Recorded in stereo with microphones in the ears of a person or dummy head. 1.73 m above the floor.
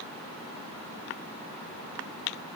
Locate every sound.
Only background noise.